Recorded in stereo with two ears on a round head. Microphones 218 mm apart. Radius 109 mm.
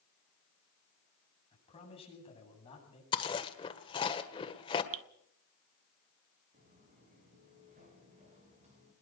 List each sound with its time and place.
1.5 s a man speaking: 25° left (ahead or behind), 8 m
3.1 s chewing: 20° left (ahead or behind), 1.6 m
4.9 s dripping: 60° right (ahead or behind), 0.7 m
6.5 s footsteps: 35° right (ahead or behind), 8 m; by 8.9 s 30° right (ahead or behind), 9 m